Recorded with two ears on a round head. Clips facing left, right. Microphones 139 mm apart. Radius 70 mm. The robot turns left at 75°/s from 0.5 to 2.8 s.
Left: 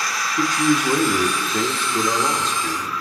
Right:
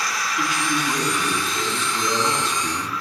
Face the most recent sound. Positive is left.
turn(degrees=-30)